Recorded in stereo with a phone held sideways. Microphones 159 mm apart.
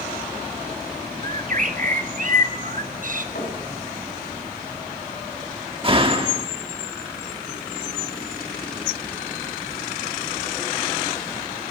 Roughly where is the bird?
Right.